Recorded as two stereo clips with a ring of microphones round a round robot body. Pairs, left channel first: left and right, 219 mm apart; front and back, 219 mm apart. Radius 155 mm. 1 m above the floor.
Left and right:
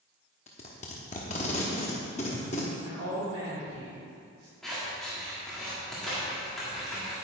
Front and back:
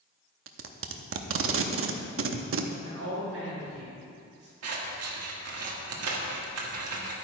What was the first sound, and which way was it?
Tape being pulled, 160° left.